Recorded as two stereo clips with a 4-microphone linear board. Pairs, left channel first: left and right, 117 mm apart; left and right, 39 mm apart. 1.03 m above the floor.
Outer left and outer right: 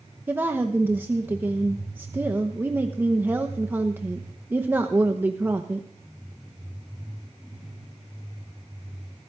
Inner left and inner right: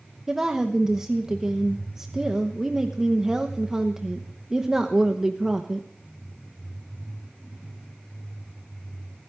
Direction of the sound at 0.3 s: 15° right (ahead or behind).